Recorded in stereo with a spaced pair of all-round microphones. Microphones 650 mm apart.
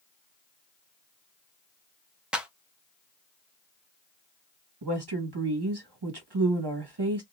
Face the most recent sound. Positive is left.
turn(degrees=-35)  # may be behind; listen again after turning